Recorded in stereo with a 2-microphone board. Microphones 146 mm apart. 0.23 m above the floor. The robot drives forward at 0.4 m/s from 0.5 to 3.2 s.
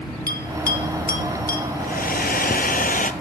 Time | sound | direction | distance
0.3 | a bell | 75° left (ahead or behind) | 1.7 m
1.8 | a hair dryer | 80° left | 0.8 m